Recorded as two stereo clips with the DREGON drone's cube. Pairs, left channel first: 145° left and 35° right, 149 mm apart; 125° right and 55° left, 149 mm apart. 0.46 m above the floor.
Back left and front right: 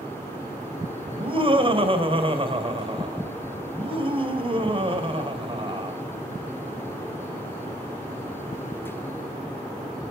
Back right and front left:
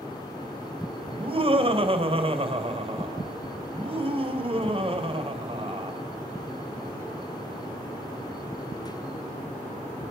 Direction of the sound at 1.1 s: 10° left.